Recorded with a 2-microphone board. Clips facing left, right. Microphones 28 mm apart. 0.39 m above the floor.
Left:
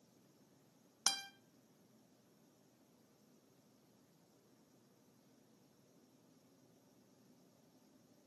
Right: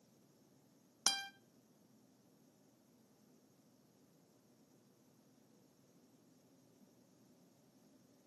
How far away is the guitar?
About 0.6 m.